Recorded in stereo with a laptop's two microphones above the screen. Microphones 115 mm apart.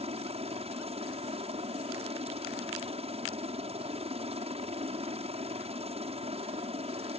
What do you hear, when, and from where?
0.0 s a helicopter: 60° right (ahead or behind)